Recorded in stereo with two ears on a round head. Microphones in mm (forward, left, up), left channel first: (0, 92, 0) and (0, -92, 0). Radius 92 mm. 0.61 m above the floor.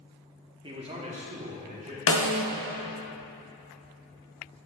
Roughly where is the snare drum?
Left.